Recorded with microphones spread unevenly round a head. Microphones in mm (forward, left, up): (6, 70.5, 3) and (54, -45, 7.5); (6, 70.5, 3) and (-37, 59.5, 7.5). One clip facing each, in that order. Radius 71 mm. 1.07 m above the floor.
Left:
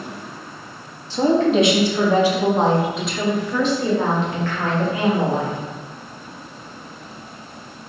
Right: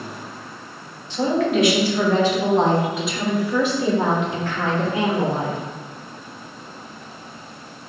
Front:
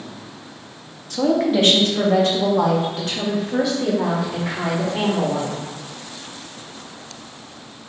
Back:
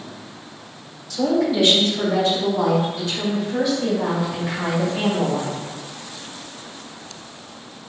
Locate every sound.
1.1 s a woman speaking: 60° left, 1.9 m; by 5.6 s 5° right, 3.5 m